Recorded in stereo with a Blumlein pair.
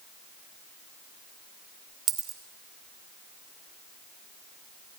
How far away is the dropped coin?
About 2.5 m.